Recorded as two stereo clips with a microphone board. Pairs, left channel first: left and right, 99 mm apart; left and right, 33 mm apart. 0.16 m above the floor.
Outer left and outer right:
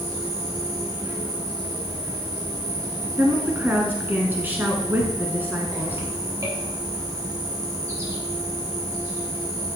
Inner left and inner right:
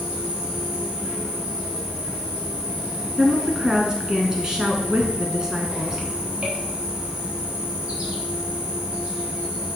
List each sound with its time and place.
0.0 s an insect: 30° right (ahead or behind), 4.5 m
3.2 s a woman speaking: 20° right (ahead or behind), 1.5 m